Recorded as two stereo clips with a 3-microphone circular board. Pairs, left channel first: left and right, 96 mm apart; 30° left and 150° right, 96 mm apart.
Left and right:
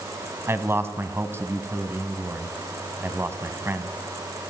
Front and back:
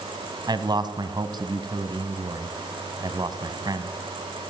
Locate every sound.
0.5 s a man speaking: 145° right, 2.5 m